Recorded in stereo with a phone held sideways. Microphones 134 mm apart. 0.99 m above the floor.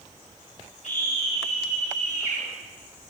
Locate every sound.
0.8 s a scream: 70° left (ahead or behind), 5 m